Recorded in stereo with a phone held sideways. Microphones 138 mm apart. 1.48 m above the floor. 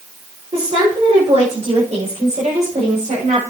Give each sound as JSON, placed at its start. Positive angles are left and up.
{"t": 0.5, "sound": "a woman speaking", "side_deg": -50, "distance_m": 6.5}